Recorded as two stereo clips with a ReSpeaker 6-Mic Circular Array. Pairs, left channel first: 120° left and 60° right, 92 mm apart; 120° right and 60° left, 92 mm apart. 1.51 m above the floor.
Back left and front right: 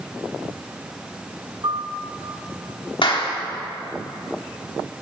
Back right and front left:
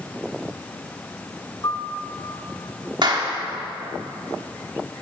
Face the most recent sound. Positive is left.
turn(degrees=95)